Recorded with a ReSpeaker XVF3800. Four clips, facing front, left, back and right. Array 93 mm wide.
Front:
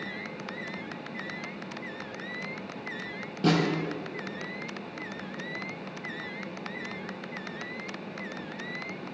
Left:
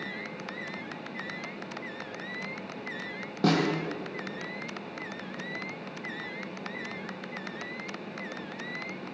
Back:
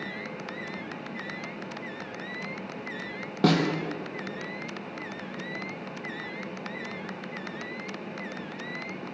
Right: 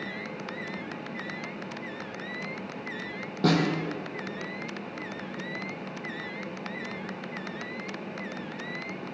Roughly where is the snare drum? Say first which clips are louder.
Right 1 dB, back 2 dB; behind.